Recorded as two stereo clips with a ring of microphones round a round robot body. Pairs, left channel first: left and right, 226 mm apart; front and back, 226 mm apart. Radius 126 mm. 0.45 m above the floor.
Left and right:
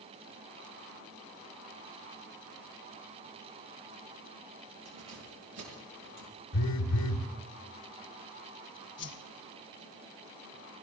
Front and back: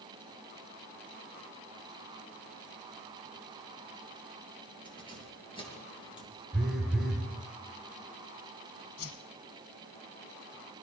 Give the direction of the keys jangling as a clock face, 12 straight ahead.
2 o'clock.